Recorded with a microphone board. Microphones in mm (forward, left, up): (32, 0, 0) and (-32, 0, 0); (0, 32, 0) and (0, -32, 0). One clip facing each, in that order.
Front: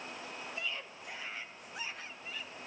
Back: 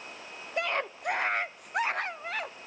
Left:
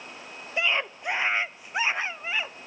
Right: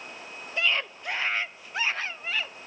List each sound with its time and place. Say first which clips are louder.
0.6 s a scream: back 15 dB, left 1 dB; 160° left, 0.6 m